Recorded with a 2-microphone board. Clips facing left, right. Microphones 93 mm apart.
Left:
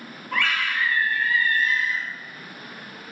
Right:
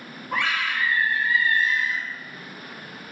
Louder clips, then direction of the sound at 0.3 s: Even; 20° right (ahead or behind).